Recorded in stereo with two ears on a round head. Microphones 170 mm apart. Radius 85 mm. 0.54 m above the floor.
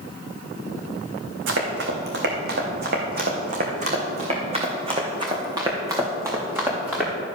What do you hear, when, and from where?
1.5 s running footsteps: 70° right (ahead or behind), 2.5 m; by 7.1 s 10° right (ahead or behind), 3 m